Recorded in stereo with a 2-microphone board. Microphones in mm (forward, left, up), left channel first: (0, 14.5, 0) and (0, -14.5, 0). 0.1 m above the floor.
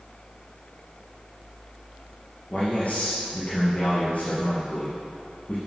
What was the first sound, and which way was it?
A man speaking, 50° left (ahead or behind).